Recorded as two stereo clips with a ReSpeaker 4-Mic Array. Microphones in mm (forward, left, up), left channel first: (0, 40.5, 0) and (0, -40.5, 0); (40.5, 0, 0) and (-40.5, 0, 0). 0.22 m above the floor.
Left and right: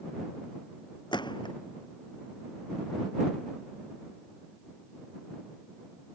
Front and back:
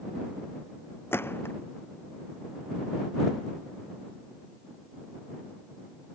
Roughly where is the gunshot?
Ahead left.